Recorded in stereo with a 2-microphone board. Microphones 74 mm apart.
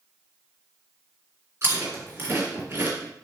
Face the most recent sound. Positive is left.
turn(degrees=-35)  # may be behind; listen again after turning